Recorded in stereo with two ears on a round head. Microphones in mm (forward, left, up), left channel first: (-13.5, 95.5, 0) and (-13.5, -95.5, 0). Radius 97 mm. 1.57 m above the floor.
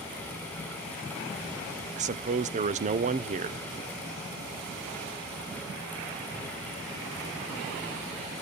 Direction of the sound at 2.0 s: 35° right (ahead or behind).